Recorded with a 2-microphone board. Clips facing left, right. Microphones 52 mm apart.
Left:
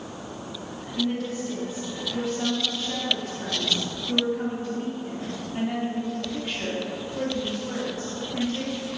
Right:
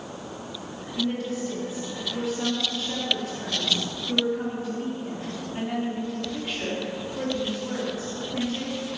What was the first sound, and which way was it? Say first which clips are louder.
A woman speaking: even; 5° left (ahead or behind).